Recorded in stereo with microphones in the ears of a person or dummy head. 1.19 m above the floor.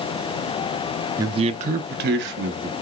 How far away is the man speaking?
About 0.6 m.